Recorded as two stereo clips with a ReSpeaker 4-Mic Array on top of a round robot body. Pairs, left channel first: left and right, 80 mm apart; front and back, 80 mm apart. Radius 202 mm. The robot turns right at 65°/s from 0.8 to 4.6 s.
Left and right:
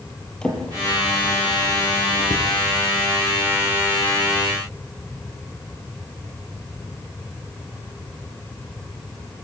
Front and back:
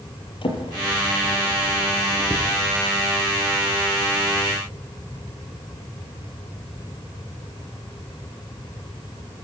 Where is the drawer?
10° left, 6.5 m; by 2.5 s 120° left, 6.5 m.